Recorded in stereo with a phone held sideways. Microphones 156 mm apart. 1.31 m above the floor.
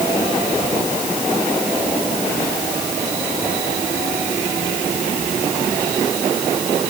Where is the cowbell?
No cowbell in this recording.